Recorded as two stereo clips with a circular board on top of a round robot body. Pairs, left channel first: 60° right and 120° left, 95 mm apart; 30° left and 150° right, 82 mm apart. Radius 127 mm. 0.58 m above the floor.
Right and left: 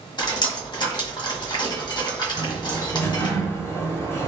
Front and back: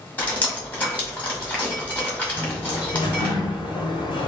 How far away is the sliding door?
About 0.8 m.